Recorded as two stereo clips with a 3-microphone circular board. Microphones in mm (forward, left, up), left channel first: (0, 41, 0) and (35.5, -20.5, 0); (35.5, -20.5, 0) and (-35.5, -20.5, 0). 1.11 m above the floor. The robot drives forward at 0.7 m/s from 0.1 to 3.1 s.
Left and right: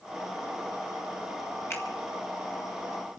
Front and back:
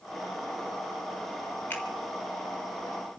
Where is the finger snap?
65° left, 3 m.